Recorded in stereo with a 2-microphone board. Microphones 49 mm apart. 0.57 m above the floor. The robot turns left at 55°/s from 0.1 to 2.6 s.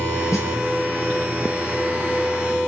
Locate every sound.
0.3 s a snare drum: 80° left, 6.5 m; by 0.5 s 90° left, 6.5 m